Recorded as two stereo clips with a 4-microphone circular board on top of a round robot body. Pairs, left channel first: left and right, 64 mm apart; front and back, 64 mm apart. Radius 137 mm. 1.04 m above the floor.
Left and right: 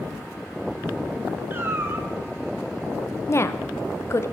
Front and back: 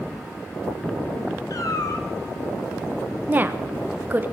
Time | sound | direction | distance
1.5 | a cat meowing | 30° right | 1.8 m
3.3 | a woman speaking | 125° left | 1.3 m